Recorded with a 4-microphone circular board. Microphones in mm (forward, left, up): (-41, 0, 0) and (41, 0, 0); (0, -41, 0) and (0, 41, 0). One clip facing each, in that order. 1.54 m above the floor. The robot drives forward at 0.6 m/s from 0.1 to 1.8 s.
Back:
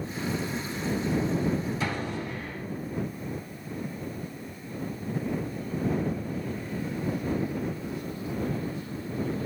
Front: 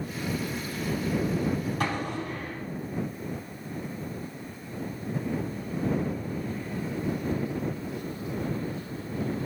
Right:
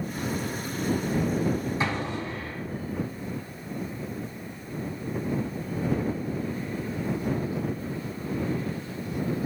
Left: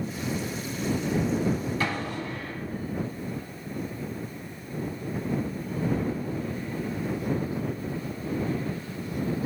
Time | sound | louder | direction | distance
1.8 | an explosion | front 1 dB, right 1 dB | 20° right | 4 m